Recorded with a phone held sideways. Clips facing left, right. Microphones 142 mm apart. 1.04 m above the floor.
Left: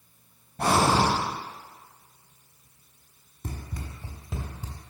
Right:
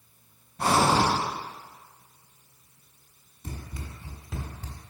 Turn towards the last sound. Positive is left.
turn(degrees=0)  # may be behind; listen again after turning